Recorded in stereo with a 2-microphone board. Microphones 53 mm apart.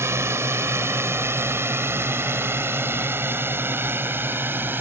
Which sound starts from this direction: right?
A drone, at 0.0 s.